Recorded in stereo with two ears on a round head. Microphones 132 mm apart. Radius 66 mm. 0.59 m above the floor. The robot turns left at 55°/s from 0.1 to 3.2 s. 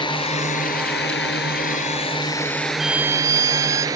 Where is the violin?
Centre (ahead or behind); by 3.9 s 20° right (ahead or behind).